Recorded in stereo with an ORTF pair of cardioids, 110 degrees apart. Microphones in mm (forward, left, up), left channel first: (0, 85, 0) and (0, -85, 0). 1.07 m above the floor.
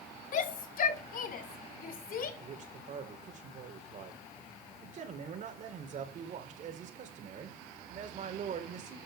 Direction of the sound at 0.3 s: 50° left.